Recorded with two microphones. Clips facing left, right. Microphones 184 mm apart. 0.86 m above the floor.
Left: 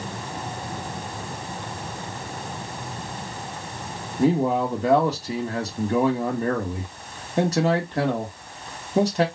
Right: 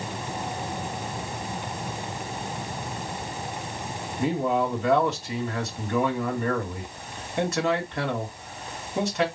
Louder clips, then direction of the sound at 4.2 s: Left 4 dB; 35° left (ahead or behind).